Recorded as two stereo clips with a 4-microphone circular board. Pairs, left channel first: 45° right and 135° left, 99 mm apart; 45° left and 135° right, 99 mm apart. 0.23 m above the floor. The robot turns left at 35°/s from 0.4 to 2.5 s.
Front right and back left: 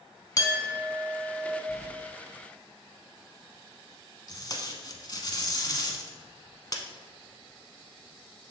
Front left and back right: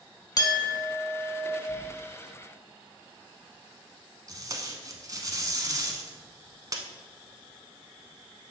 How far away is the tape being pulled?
About 0.8 m.